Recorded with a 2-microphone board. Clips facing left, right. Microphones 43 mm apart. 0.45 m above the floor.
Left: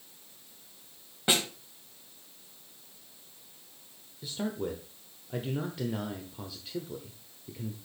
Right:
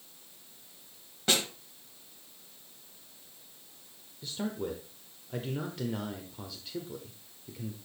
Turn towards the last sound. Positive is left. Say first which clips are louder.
# left 1 dB
turn(degrees=0)  # may be behind; listen again after turning